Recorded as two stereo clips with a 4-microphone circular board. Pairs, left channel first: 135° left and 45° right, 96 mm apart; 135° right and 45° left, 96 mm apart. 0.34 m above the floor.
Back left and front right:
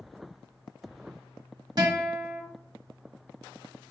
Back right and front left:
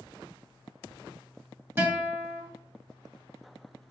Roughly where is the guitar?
Ahead.